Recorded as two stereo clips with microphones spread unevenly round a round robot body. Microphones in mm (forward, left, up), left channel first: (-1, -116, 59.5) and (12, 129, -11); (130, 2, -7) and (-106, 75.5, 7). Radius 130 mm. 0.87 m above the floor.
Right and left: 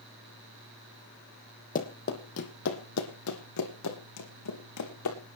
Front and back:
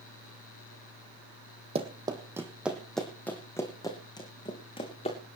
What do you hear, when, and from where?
1.8 s running footsteps: 135° right, 1.5 m; by 5.2 s 85° right, 3.5 m